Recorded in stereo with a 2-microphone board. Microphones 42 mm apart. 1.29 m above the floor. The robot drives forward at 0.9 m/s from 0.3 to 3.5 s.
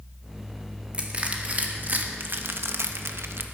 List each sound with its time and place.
0.9 s crushing: 30° right (ahead or behind), 2 m; by 3.4 s 65° right (ahead or behind), 1.1 m